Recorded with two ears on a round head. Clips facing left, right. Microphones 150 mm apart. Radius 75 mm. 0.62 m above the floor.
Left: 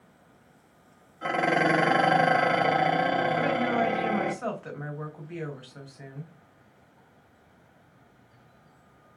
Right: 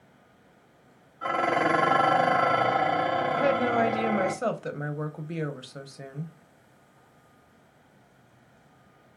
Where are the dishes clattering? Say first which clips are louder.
Left 1 dB; 20° left (ahead or behind), 0.8 m.